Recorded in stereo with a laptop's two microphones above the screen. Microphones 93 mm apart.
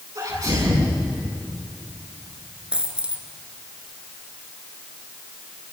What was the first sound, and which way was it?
A sneeze, 50° right (ahead or behind).